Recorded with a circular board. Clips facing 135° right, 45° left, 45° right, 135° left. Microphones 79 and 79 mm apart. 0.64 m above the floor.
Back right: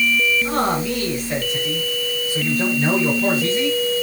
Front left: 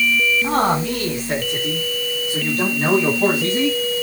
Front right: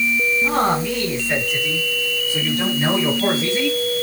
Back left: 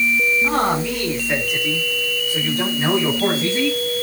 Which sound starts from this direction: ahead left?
A man speaking, at 0.4 s.